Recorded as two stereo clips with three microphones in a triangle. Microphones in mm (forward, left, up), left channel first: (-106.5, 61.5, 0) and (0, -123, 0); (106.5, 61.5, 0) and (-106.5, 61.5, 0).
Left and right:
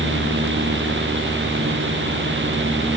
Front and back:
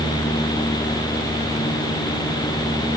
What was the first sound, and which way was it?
Only background noise.